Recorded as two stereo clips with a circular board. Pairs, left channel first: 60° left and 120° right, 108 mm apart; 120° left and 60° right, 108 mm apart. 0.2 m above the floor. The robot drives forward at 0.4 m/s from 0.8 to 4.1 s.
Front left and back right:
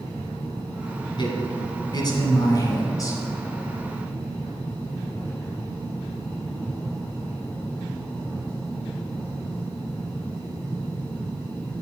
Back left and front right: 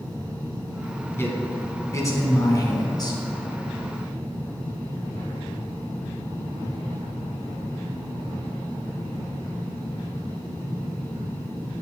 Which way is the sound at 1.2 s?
60° left.